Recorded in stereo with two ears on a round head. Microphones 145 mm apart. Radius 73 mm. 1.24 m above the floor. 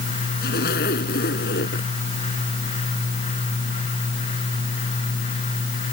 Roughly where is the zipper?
Left.